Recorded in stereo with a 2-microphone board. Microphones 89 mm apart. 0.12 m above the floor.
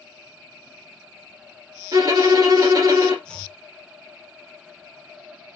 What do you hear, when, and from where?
1.9 s a violin: 45° right (ahead or behind), 1.3 m
3.2 s chopping: 10° left (ahead or behind), 0.8 m